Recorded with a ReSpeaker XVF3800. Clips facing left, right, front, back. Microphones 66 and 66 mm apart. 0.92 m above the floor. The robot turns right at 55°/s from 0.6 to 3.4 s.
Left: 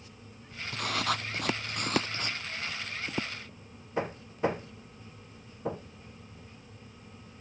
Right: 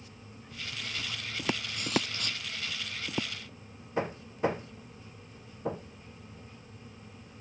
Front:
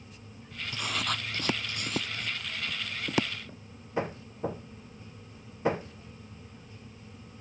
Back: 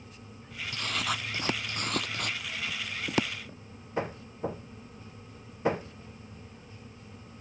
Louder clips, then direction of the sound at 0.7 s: Left 10 dB, even; 70° left.